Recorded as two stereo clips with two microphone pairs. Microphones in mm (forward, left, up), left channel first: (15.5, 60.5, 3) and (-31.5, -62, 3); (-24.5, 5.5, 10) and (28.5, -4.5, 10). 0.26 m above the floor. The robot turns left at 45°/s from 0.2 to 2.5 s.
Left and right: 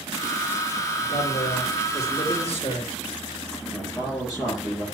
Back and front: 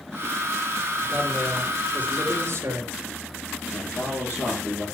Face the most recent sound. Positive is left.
turn(degrees=130)